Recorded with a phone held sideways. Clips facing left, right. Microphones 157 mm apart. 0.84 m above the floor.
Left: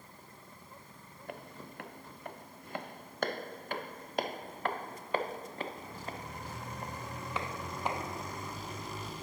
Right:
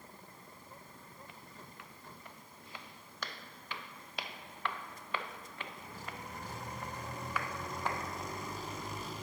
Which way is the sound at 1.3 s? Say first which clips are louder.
Left 8 dB; 60° left (ahead or behind).